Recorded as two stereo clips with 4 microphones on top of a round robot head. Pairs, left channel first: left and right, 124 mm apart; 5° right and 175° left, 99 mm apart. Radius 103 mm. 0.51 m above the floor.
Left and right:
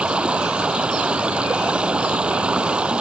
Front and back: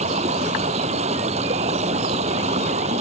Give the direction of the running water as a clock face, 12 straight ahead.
6 o'clock.